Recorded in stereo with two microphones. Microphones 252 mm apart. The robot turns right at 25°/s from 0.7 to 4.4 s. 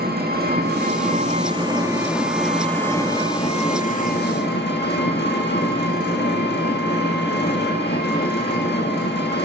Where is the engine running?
45° right, 1.6 m; by 9.5 s 50° left, 1.6 m.